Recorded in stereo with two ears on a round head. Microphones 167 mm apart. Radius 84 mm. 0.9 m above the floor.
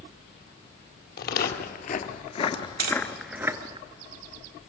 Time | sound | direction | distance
1.2 | footsteps | 60° left (ahead or behind) | 1.6 m
2.8 | tapping | 50° right (ahead or behind) | 2.5 m